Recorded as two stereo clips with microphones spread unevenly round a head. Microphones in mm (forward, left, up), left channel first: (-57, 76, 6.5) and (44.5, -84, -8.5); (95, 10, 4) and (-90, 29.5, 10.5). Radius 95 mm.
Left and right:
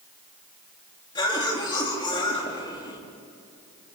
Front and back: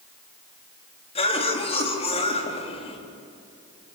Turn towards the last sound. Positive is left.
turn(degrees=55)